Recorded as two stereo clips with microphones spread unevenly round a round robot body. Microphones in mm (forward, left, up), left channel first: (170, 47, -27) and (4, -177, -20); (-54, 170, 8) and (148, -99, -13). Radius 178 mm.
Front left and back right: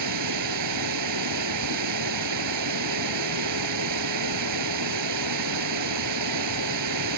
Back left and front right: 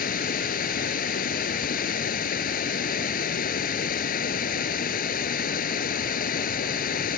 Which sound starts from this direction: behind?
Running water, at 0.0 s.